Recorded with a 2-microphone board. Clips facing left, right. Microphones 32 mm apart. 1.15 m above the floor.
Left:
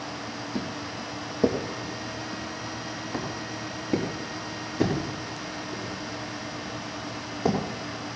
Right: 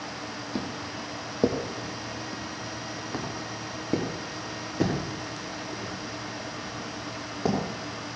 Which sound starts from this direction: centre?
Footsteps, at 0.6 s.